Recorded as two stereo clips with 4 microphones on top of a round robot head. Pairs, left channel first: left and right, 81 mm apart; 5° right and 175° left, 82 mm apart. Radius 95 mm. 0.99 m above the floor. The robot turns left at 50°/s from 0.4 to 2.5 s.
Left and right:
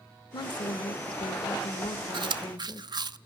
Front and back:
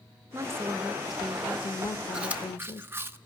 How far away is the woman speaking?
About 1.2 m.